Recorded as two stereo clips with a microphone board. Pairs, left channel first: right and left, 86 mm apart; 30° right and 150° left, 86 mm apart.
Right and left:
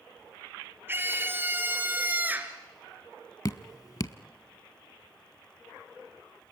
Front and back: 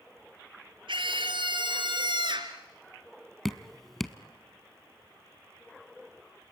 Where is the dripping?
115° right, 0.7 m.